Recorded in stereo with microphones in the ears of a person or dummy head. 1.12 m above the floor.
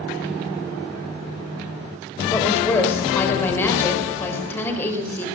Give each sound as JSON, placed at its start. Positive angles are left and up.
{"t": 2.3, "sound": "a woman speaking", "side_deg": 15, "distance_m": 4.0}